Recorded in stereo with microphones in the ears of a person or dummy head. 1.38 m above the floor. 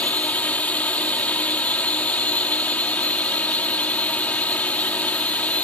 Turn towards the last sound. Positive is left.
turn(degrees=5)  # may be behind; listen again after turning